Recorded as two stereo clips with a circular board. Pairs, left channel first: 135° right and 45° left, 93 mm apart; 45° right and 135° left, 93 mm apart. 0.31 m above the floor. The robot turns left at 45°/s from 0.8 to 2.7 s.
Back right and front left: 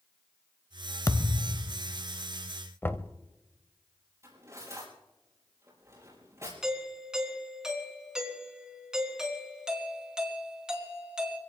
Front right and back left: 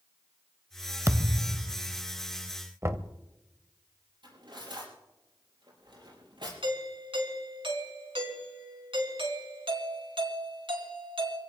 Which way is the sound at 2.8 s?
175° left.